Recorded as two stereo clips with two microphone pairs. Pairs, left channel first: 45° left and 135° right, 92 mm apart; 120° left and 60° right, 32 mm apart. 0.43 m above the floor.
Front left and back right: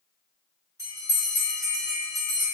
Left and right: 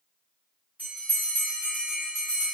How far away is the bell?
About 1.7 m.